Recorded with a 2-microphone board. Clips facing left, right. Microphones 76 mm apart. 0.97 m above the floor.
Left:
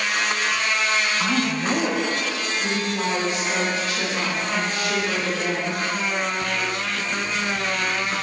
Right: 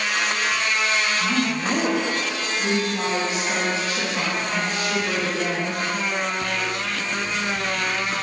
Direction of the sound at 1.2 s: 25° left (ahead or behind).